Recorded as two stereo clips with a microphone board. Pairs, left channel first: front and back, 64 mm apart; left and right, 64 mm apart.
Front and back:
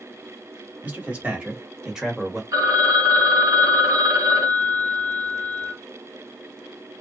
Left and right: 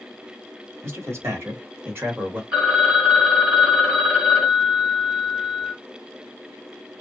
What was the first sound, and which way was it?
A man speaking, 120° right.